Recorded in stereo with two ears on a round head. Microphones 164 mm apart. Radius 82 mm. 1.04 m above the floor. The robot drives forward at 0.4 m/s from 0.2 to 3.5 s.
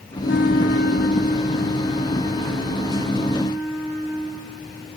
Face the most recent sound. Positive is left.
turn(degrees=20)  # may be behind; listen again after turning